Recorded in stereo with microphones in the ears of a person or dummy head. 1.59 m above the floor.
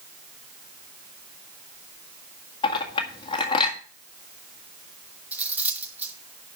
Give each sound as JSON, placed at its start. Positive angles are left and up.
{"t": 2.6, "sound": "a clink", "side_deg": 25, "distance_m": 1.7}
{"t": 5.3, "sound": "cutlery clinking", "side_deg": -10, "distance_m": 1.5}